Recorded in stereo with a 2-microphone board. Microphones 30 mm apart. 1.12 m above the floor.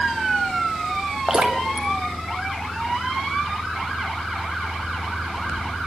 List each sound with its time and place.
1.3 s dripping: 30° right (ahead or behind), 2.5 m